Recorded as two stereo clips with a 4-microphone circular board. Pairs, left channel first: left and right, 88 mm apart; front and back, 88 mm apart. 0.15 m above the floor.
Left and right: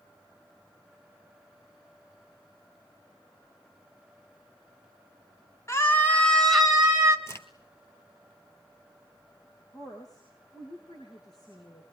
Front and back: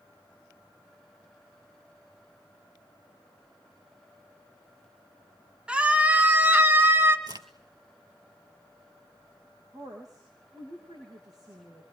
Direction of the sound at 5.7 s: 115° left.